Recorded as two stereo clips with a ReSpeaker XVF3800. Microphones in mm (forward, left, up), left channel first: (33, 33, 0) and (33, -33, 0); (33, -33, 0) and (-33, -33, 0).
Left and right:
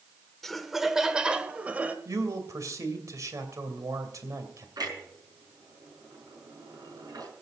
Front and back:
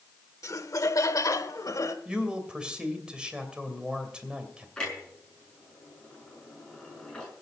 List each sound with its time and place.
0.4 s laughter: 10° left, 1.1 m; by 1.9 s 25° right, 1.7 m
2.0 s a man speaking: 105° right, 2.5 m
4.8 s a clunk: 80° right, 5.5 m